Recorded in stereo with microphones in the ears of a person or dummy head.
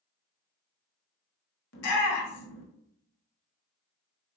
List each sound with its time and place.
1.7 s a shout: 65° left (ahead or behind), 1.3 m